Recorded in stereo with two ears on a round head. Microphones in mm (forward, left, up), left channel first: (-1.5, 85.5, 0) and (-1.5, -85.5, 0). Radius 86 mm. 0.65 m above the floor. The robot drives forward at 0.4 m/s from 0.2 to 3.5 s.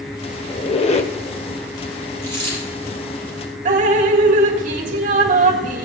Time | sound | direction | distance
0.5 | a squeak | 30° left (ahead or behind) | 1.2 m
2.2 | a dropped coin | 15° left (ahead or behind) | 5.5 m
3.6 | dripping | 45° right (ahead or behind) | 1.9 m